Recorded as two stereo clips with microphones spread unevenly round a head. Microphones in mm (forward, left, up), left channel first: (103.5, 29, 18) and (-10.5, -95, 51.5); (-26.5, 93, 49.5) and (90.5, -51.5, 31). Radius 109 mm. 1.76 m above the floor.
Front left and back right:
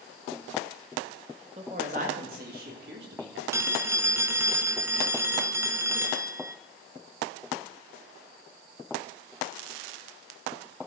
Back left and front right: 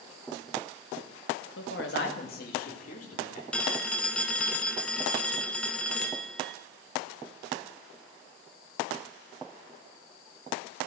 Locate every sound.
1.6 s a woman speaking: 165° left, 2.5 m; by 3.4 s 175° right, 4.5 m
3.5 s a phone ringing: 165° right, 0.7 m